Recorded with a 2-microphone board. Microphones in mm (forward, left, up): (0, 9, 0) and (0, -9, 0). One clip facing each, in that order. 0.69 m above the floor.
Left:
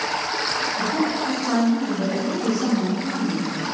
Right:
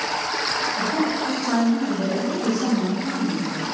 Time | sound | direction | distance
0.8 | a woman speaking | 50° right (ahead or behind) | 1.4 m